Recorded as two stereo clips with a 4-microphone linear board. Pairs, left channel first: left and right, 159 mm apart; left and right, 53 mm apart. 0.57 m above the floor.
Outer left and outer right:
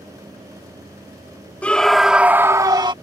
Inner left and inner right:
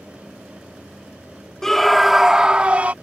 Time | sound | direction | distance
1.6 | a scream | 10° left (ahead or behind) | ?